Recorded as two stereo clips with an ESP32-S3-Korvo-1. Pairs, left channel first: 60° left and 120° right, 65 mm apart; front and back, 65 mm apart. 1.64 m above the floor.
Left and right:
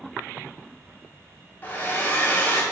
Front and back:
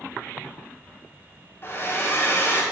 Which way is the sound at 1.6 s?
20° left.